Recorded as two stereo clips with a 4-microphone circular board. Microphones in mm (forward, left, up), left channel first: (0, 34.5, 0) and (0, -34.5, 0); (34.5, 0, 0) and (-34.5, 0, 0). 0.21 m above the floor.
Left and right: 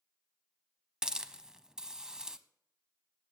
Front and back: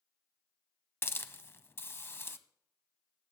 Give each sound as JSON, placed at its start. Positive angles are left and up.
{"t": 1.0, "sound": "a hiss", "azimuth_deg": -20, "distance_m": 0.6}